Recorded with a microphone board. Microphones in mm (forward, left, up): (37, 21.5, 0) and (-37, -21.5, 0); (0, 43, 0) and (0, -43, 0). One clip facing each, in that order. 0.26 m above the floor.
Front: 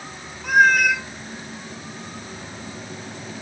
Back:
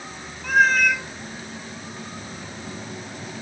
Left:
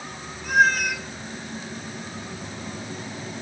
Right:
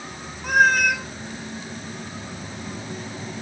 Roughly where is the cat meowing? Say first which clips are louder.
Front 2 dB, right 2 dB; ahead right.